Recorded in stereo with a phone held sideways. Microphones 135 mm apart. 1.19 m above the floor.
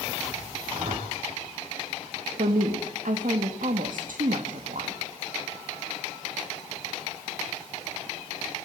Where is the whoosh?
85° right, 8 m.